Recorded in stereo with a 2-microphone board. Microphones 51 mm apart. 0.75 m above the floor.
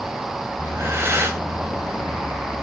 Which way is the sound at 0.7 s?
55° right (ahead or behind).